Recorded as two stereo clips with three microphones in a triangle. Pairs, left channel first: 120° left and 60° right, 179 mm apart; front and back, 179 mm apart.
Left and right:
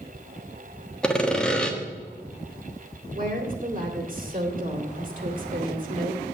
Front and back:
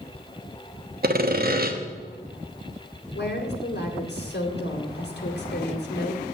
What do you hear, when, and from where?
1.0 s sawing: 155° right, 1.2 m
3.1 s a woman speaking: 20° right, 2.5 m